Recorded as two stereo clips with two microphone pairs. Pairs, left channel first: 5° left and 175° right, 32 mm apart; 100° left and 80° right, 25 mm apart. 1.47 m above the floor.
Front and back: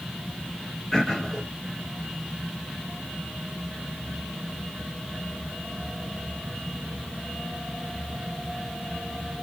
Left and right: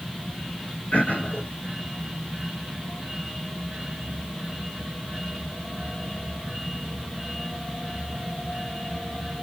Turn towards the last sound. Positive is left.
turn(degrees=85)